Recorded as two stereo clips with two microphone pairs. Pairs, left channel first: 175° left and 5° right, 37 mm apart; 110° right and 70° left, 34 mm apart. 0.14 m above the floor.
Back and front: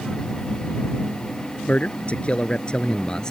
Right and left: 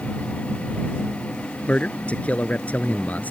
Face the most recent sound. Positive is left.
turn(degrees=-125)